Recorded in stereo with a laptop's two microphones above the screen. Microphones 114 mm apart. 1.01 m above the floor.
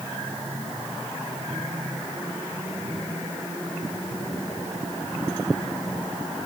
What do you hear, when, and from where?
Only background noise.